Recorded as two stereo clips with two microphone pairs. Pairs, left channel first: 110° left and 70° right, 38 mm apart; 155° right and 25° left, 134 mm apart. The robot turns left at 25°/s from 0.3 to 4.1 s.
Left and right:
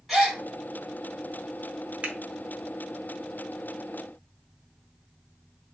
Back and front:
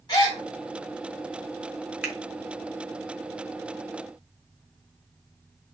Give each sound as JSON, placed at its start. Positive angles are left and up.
{"t": 0.1, "sound": "a gasp", "azimuth_deg": -165, "distance_m": 1.6}
{"t": 2.0, "sound": "a finger snap", "azimuth_deg": -50, "distance_m": 0.9}